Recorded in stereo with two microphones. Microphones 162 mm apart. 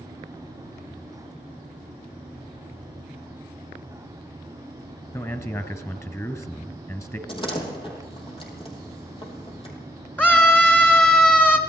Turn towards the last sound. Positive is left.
turn(degrees=10)  # may be behind; listen again after turning